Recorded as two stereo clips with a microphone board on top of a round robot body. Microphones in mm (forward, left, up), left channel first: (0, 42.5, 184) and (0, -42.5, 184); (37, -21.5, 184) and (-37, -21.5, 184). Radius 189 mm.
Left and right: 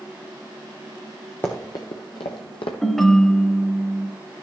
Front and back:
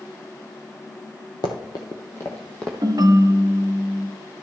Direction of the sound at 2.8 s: 175° left.